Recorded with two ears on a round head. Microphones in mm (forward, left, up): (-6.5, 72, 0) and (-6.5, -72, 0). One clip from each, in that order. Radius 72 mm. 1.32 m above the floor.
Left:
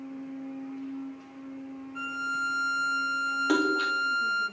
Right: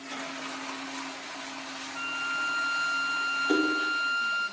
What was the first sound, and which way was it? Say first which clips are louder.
A violin: even; 25° left (ahead or behind).